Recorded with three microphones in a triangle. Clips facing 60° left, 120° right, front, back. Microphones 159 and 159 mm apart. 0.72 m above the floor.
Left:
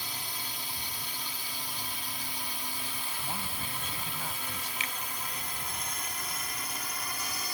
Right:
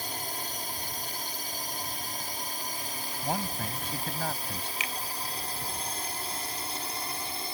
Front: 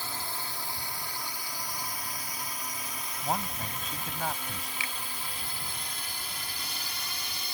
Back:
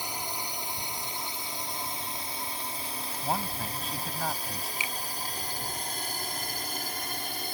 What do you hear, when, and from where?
0.0 s a drone: 115° right; by 7.5 s 170° right
3.2 s a man speaking: 90° right
4.8 s a finger snap: 110° left